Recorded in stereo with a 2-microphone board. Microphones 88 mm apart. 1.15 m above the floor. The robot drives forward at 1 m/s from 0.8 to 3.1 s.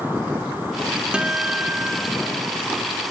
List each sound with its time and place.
1.1 s a guitar: 10° right (ahead or behind), 0.7 m